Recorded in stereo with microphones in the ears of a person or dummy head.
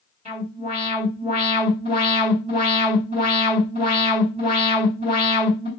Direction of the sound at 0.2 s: 40° right (ahead or behind).